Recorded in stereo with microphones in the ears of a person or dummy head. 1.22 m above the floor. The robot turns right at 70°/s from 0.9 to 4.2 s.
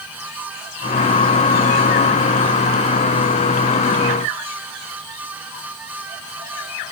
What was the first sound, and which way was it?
Only background noise.